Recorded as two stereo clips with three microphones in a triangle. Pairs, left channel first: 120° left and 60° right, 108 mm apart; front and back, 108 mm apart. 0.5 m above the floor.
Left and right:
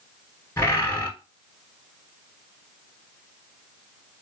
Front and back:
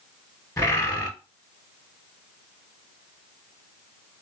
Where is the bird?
55° left, 1.1 m.